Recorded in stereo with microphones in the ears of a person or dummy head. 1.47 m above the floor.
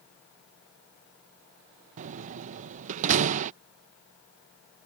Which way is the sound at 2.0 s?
40° right (ahead or behind).